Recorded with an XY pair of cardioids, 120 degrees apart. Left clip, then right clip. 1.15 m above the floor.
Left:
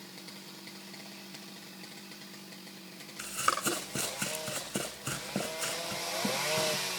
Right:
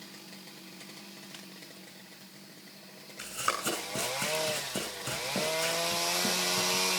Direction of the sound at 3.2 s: 10° left.